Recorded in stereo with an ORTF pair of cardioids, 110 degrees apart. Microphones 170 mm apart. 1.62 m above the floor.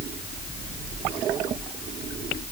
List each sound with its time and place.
Only background noise.